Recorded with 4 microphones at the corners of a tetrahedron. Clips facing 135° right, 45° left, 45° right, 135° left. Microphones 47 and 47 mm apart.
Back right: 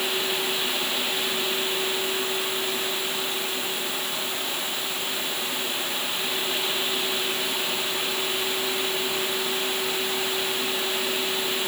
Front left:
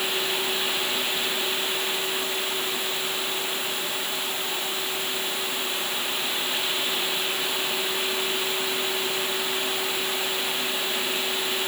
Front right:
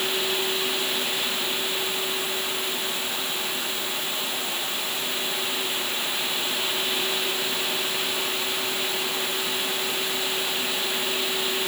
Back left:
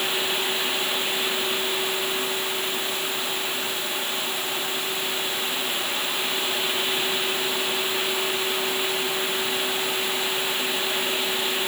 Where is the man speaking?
I don't hear a man speaking.